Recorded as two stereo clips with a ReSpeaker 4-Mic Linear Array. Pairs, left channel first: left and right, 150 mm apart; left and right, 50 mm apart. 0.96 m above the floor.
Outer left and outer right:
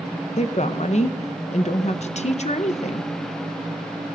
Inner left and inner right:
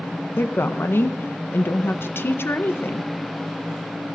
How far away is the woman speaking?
About 0.7 m.